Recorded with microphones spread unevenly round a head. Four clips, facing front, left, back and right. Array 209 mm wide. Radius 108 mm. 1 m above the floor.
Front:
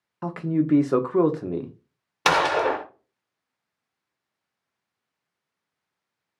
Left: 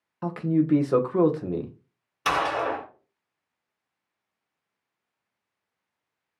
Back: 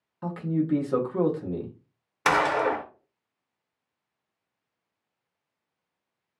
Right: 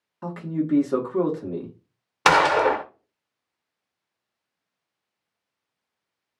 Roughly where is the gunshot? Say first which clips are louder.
Right 7 dB, front 2 dB; ahead right.